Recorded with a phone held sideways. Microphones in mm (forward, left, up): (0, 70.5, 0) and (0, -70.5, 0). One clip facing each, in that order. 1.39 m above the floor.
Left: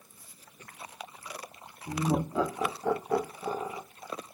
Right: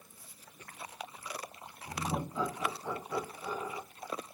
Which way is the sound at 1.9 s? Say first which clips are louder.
Left 7 dB; 85° left.